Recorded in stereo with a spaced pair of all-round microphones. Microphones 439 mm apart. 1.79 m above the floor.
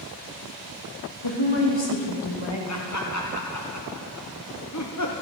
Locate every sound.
1.2 s a woman speaking: 75° left (ahead or behind), 3 m
2.7 s laughter: 40° left (ahead or behind), 1.0 m